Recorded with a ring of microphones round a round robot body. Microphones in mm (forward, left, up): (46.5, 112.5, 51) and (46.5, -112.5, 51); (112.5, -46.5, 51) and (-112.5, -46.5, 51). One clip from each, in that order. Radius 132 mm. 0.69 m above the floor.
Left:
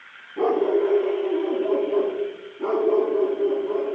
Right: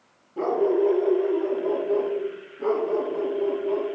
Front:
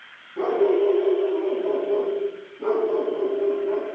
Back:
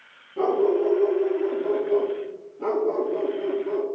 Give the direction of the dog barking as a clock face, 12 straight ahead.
4 o'clock.